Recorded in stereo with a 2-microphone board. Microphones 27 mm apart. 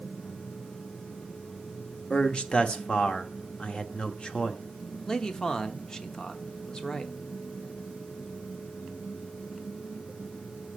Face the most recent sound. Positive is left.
turn(degrees=25)  # may be behind; listen again after turning